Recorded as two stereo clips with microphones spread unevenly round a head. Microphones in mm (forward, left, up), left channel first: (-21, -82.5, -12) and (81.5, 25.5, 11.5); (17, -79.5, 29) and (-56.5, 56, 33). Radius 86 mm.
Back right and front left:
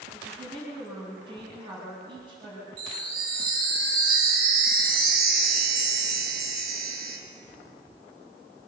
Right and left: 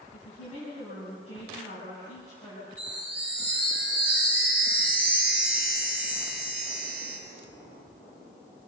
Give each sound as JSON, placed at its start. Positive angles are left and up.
{"t": 0.1, "sound": "a woman speaking", "azimuth_deg": -10, "distance_m": 8.0}
{"t": 2.8, "sound": "a chime", "azimuth_deg": 40, "distance_m": 5.5}